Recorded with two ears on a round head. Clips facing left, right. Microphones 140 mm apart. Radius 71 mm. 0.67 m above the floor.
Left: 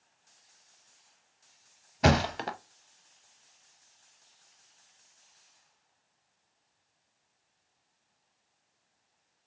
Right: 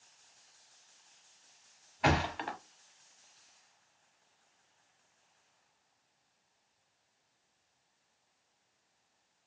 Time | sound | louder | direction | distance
2.0 | a thud | left 5 dB | 45° left (ahead or behind) | 0.6 m